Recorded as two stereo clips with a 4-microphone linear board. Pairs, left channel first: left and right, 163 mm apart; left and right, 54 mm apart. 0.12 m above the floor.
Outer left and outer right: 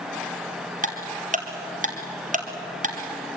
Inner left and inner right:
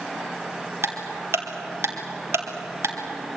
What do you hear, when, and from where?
0.8 s ticking: 55° right (ahead or behind), 2.5 m